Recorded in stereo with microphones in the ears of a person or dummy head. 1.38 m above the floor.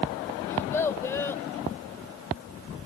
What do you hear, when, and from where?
0.5 s a child speaking: 15° left (ahead or behind)